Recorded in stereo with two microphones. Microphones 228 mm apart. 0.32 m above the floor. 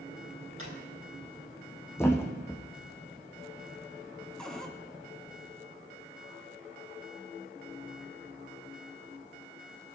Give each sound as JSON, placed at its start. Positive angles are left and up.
{"t": 0.6, "sound": "a drawer", "side_deg": -75, "distance_m": 4.0}
{"t": 2.0, "sound": "a thud", "side_deg": 10, "distance_m": 1.4}
{"t": 4.4, "sound": "a cupboard door", "side_deg": 5, "distance_m": 1.4}